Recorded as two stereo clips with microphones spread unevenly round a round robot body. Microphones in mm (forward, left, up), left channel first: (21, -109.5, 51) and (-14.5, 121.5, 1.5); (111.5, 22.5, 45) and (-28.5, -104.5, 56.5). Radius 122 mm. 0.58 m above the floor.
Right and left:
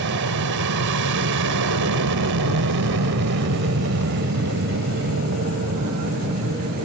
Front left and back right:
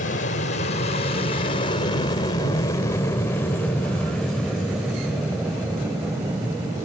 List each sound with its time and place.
0.0 s an aircraft: 85° left; by 6.8 s 145° left